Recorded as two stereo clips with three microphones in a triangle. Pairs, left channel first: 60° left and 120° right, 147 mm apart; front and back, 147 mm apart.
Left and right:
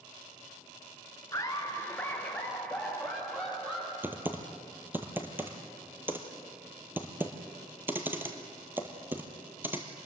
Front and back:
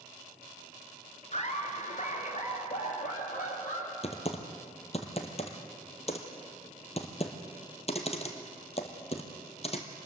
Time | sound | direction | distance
1.3 | laughter | straight ahead | 2.5 m
4.0 | typing on a keyboard | 45° right | 1.7 m